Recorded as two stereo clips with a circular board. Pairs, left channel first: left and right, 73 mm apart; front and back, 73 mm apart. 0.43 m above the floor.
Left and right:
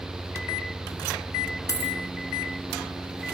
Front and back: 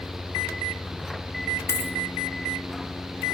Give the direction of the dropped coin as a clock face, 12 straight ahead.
10 o'clock.